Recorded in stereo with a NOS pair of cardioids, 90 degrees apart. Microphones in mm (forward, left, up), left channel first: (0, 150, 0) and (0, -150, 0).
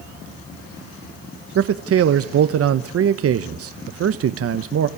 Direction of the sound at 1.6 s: 50° right.